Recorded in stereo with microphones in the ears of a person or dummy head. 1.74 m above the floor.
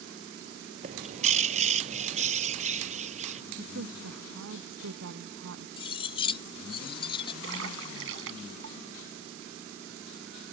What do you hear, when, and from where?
0.8 s a bird: 45° right (ahead or behind)
3.6 s a woman speaking: 75° right (ahead or behind)
5.8 s cutlery clinking: 30° left (ahead or behind)
7.4 s a splash: 80° right